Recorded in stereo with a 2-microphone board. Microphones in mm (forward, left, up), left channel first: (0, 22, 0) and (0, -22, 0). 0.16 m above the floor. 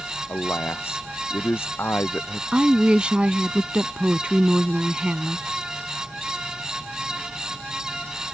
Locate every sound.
0.3 s a man speaking: 65° left (ahead or behind); by 2.4 s 60° left (ahead or behind)
2.5 s a woman speaking: 25° right (ahead or behind)